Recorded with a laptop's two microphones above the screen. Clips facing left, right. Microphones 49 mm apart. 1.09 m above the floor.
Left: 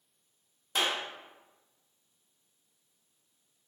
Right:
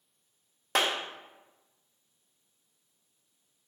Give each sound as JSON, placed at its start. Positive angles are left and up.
{"t": 0.8, "sound": "a clap", "side_deg": -80, "distance_m": 0.5}